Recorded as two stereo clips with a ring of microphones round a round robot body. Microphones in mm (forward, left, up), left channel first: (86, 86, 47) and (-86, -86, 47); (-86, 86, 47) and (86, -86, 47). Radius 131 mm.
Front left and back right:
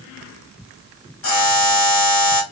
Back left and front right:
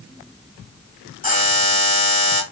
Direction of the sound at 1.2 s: 75° left.